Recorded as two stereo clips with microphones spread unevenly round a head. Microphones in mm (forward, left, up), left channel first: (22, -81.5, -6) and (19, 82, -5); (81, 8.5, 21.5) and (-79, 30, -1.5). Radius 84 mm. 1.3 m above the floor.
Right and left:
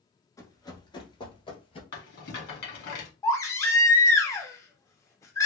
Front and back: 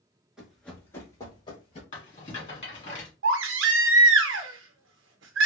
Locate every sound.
0.4 s running footsteps: 85° right, 1.3 m; by 1.8 s 45° right, 1.8 m
1.9 s a rattle: 65° right, 2.0 m
3.2 s a baby crying: 165° right, 0.6 m